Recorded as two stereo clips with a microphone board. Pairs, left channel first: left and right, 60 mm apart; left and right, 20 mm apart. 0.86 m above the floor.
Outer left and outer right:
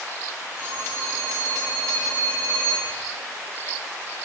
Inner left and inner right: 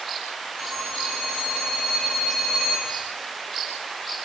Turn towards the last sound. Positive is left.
turn(degrees=55)  # may be behind; listen again after turning